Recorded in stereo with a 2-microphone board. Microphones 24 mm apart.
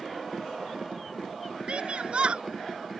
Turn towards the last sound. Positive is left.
turn(degrees=-60)  # may be behind; listen again after turning